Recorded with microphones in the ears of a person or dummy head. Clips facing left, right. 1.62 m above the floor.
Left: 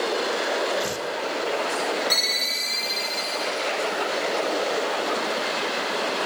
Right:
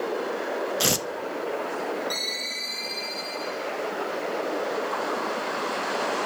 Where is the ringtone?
35° left (ahead or behind), 6.5 m.